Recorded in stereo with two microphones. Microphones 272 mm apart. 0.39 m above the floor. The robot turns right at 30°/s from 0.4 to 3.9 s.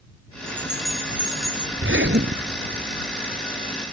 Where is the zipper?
50° right; by 2.8 s 20° right.